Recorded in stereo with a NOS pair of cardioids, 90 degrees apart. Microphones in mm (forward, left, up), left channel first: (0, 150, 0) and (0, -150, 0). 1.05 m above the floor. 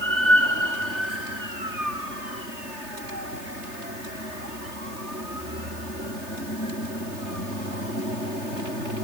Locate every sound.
Only background noise.